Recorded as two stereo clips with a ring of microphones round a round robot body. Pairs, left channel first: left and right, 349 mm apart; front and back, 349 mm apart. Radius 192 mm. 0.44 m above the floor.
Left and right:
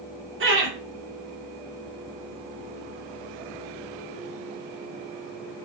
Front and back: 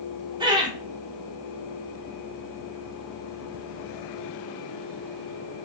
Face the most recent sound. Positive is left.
turn(degrees=-110)